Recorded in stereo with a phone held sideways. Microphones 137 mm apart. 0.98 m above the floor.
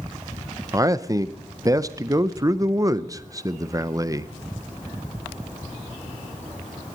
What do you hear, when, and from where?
0.7 s a man speaking: 25° right (ahead or behind), 0.5 m